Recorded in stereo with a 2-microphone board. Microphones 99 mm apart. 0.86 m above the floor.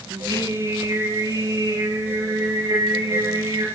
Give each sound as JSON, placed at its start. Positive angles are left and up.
{"t": 0.1, "sound": "singing", "side_deg": -40, "distance_m": 7.0}